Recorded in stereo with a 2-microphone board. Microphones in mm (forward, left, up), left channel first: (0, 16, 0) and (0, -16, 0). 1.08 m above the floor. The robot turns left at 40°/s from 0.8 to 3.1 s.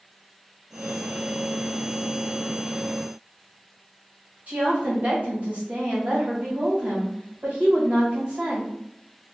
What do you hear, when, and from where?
4.5 s a woman speaking: 45° right (ahead or behind), 1.3 m